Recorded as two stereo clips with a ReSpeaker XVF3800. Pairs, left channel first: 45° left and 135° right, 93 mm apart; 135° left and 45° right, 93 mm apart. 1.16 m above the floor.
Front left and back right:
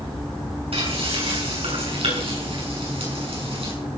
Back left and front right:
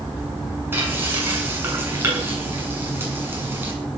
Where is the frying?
115° right, 7.5 m.